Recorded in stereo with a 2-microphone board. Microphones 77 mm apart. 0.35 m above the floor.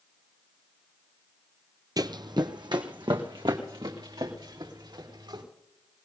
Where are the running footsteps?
55° right (ahead or behind), 0.6 m; by 5.4 s 85° right, 5 m.